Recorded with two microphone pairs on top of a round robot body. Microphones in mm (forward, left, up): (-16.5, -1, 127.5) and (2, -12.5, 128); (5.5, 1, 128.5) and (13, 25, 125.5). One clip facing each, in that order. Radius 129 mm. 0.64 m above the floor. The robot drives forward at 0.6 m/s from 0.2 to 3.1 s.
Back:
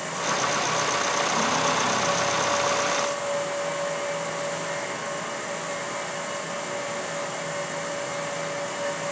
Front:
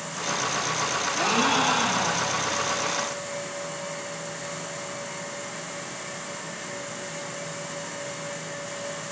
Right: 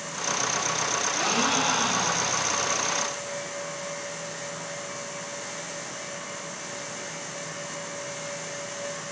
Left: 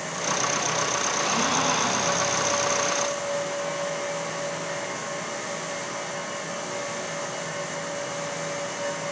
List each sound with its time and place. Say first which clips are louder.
1.2 s a gasp: front 1 dB, right 1 dB; 35° right, 3.5 m; by 2.5 s 45° right, 3 m